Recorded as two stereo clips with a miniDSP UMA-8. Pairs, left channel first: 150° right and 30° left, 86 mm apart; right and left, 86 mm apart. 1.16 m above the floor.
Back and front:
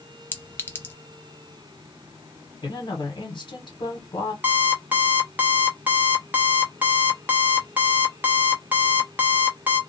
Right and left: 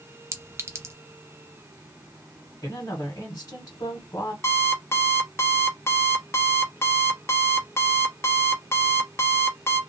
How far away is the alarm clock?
About 0.8 m.